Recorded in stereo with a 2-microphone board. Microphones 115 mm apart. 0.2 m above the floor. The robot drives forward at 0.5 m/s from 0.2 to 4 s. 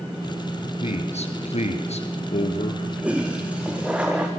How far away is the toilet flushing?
About 3.5 m.